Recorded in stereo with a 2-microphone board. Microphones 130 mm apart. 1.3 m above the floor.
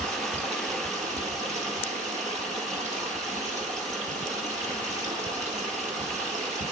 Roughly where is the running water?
Right.